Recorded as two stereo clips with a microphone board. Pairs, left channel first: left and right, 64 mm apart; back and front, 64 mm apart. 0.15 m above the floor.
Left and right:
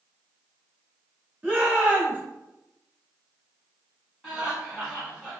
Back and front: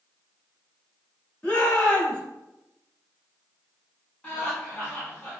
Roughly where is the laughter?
Behind.